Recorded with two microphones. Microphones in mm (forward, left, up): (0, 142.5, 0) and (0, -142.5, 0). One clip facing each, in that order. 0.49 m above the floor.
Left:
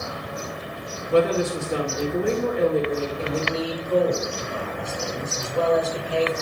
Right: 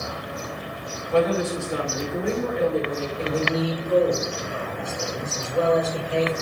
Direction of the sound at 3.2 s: 25° right (ahead or behind).